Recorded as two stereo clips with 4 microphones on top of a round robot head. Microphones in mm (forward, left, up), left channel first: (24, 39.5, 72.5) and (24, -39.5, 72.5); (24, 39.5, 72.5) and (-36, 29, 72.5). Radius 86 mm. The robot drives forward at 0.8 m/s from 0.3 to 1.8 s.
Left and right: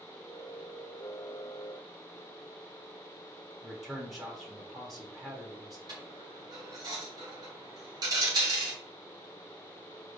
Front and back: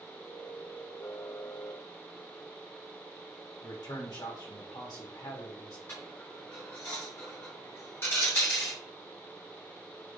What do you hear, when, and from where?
3.6 s a man speaking: 5° right, 1.2 m
5.9 s a dropped coin: 60° right, 0.8 m